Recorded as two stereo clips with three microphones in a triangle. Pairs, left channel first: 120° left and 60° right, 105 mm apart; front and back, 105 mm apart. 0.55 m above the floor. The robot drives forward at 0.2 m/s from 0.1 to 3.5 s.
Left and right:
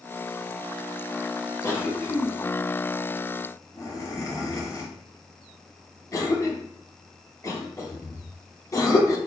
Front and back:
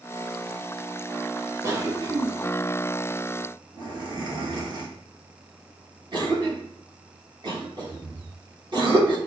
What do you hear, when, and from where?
1.6 s a cough: 155° left, 0.9 m; by 9.2 s 165° left, 1.1 m